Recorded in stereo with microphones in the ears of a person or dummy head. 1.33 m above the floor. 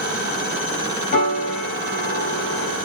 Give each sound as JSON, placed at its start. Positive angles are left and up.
{"t": 1.1, "sound": "a piano", "side_deg": 55, "distance_m": 2.5}